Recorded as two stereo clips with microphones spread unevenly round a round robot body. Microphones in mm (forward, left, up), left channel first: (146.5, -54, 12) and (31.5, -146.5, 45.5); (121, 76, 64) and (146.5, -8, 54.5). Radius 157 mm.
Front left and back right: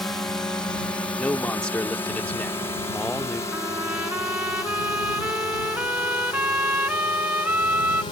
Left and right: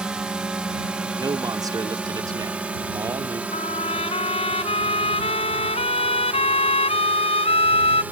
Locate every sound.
0.0 s a drone: 15° right; by 8.1 s 5° right
1.2 s a man speaking: 35° right
3.5 s a trumpet: 135° left